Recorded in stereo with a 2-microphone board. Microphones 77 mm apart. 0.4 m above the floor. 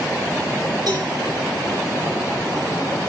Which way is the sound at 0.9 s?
65° right (ahead or behind).